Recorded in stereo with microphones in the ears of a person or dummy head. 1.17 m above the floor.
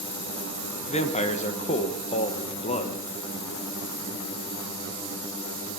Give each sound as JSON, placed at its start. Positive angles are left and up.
{"t": 0.9, "sound": "a man speaking", "side_deg": 30, "distance_m": 1.3}